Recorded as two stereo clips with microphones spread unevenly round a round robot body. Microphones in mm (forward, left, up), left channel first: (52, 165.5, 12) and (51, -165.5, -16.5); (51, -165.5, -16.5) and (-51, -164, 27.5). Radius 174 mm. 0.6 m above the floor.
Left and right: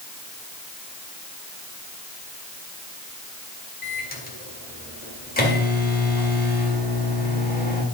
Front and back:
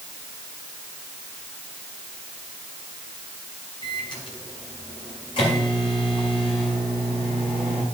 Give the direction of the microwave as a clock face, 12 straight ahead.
11 o'clock.